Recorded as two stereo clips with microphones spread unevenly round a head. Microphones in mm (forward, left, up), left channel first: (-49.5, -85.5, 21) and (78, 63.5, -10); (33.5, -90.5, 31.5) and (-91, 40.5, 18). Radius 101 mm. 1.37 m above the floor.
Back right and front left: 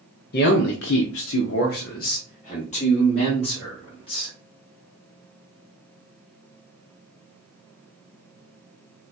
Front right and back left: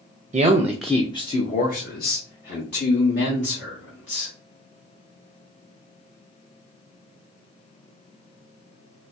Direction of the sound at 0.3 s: 175° right.